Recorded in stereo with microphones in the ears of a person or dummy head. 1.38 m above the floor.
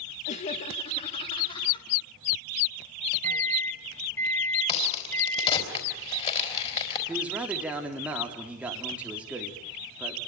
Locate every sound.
0.3 s laughter: 40° left (ahead or behind), 1.2 m; by 1.9 s 30° left (ahead or behind), 3 m
3.2 s a microwave: 15° left (ahead or behind), 1.7 m
4.7 s a crack: 35° left (ahead or behind), 4 m
7.1 s a man speaking: 5° right (ahead or behind), 3.5 m